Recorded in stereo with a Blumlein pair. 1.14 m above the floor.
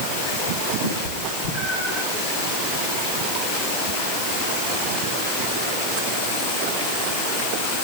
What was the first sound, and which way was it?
A cat meowing, 65° left.